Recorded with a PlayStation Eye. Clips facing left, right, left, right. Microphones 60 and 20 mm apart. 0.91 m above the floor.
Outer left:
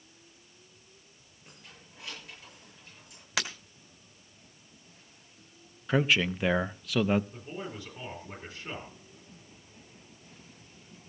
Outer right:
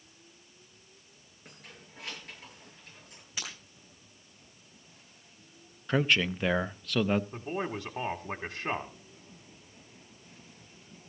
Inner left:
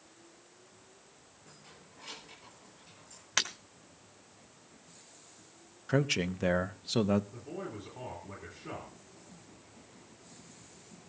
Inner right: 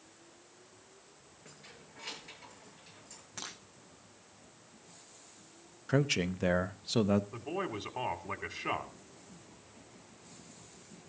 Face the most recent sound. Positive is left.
turn(degrees=-60)  # may be behind; listen again after turning